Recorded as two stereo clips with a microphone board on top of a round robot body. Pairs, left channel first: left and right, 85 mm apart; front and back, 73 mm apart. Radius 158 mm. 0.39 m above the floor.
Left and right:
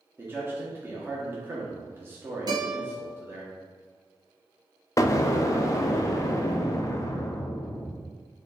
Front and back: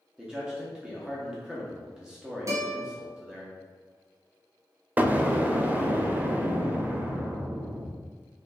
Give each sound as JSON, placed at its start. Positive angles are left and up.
{"t": 0.2, "sound": "a man speaking", "azimuth_deg": -110, "distance_m": 1.0}
{"t": 2.5, "sound": "a guitar", "azimuth_deg": -130, "distance_m": 1.1}
{"t": 5.0, "sound": "an explosion", "azimuth_deg": 125, "distance_m": 0.7}